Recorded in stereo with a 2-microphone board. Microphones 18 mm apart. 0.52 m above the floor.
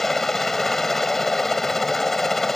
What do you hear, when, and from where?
0.0 s a helicopter: 20° left (ahead or behind)